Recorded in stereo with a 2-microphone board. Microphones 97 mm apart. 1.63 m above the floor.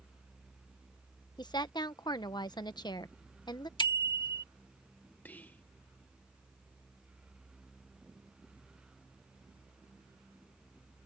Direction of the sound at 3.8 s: 55° left (ahead or behind).